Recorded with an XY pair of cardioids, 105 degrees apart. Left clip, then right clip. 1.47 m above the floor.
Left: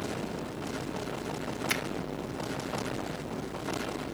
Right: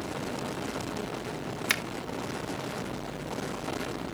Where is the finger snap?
65° right, 4 m.